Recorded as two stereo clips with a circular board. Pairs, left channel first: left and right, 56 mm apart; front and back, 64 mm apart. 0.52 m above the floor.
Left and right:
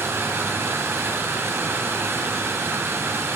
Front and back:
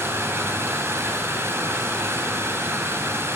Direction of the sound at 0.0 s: 130° right.